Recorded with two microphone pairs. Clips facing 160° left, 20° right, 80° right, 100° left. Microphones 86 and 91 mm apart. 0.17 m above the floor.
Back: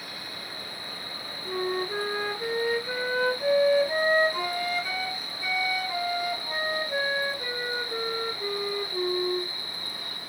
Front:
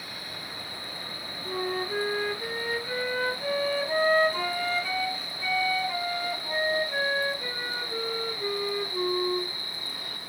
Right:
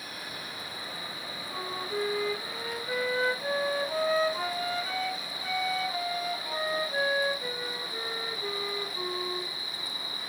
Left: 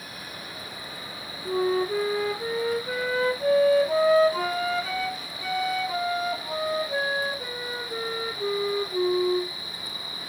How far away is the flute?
About 1.1 m.